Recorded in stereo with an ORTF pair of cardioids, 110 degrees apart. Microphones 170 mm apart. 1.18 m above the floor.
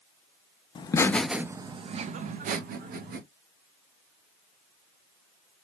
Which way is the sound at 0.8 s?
30° left.